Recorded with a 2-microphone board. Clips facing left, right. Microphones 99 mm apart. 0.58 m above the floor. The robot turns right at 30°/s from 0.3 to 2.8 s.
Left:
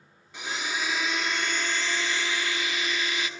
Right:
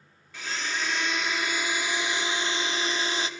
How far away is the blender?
About 0.6 m.